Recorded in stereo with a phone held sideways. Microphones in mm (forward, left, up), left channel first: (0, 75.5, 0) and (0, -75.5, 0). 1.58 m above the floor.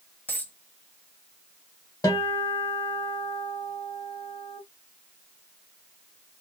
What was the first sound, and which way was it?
A dropped coin, 10° left (ahead or behind).